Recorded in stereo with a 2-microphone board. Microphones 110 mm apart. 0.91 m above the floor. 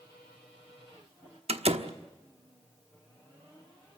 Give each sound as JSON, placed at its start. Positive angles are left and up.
{"t": 1.5, "sound": "a door slam", "side_deg": -70, "distance_m": 1.1}